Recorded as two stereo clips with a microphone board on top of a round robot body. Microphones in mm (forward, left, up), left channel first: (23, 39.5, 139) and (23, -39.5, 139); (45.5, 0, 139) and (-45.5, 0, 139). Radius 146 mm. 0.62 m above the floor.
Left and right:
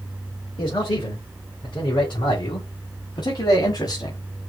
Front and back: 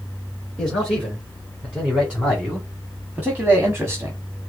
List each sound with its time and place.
0.6 s a man speaking: 85° left, 3 m; by 4.2 s 115° left, 1.5 m